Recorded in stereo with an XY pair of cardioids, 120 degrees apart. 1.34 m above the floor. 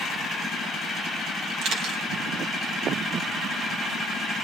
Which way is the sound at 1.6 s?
65° right.